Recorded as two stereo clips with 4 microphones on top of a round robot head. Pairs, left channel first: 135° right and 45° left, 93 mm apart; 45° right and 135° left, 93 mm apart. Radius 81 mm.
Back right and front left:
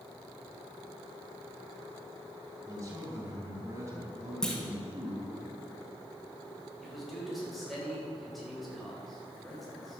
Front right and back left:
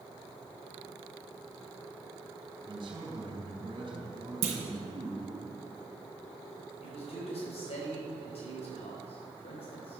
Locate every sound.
2.7 s a man speaking: 100° left, 3 m
4.4 s a clunk: 140° left, 1.6 m
6.8 s a man speaking: 45° right, 4 m